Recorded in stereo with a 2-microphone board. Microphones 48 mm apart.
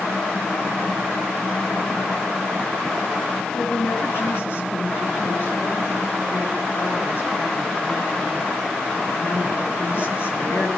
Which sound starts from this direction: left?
A woman speaking, at 3.5 s.